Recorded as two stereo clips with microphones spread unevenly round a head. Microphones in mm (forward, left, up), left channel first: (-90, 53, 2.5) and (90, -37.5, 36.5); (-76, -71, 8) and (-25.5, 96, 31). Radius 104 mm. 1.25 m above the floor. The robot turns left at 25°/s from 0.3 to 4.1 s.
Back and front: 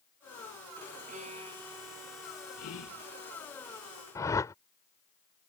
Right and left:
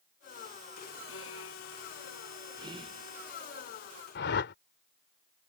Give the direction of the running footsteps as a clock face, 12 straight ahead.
No running footsteps in this recording.